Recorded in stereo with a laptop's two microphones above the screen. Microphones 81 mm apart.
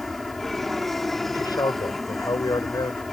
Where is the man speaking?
55° left (ahead or behind).